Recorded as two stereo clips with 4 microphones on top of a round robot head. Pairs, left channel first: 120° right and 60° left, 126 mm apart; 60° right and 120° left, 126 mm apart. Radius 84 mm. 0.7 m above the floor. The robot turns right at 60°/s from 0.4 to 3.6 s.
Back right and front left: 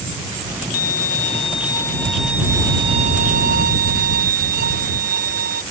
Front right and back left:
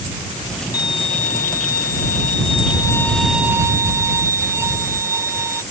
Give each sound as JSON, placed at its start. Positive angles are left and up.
{"t": 0.7, "sound": "a violin", "azimuth_deg": -120}